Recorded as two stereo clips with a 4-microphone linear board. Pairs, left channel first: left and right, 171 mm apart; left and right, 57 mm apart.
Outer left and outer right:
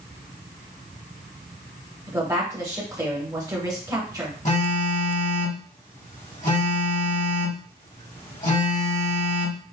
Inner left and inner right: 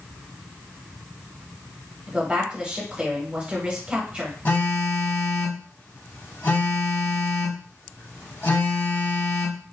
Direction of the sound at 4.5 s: 45° left (ahead or behind).